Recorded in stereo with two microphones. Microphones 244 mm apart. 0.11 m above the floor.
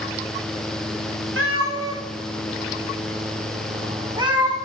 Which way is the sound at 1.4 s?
55° right (ahead or behind).